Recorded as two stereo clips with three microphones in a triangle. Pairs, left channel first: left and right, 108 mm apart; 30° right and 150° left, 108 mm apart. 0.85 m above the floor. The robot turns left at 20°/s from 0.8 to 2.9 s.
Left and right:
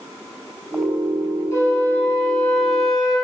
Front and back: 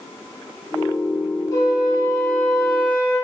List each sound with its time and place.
1.5 s a flute: 30° left, 2 m; by 3.2 s straight ahead, 2 m